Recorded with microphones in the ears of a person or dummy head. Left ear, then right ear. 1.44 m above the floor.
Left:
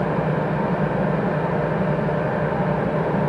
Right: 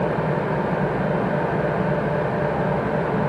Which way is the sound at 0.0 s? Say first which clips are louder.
Even; 45° right (ahead or behind).